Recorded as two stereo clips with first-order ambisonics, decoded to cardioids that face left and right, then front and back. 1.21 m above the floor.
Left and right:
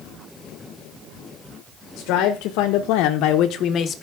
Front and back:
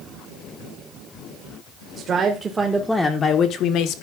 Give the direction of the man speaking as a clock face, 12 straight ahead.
8 o'clock.